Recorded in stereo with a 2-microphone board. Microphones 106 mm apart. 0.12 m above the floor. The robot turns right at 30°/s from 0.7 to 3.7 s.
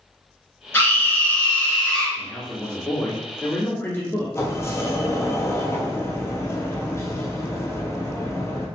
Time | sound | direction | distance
0.7 | a scream | 20° left (ahead or behind) | 1.1 m
2.2 | a man speaking | centre (ahead or behind) | 1.3 m
4.3 | a sliding door | 25° left (ahead or behind) | 0.8 m